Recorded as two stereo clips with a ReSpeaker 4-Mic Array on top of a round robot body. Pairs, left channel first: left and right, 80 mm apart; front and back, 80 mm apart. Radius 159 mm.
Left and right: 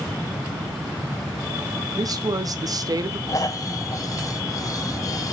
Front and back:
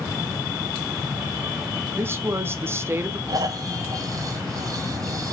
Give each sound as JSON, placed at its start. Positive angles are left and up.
{"t": 1.9, "sound": "a woman speaking", "azimuth_deg": -125, "distance_m": 2.0}
{"t": 3.3, "sound": "snoring", "azimuth_deg": 135, "distance_m": 3.0}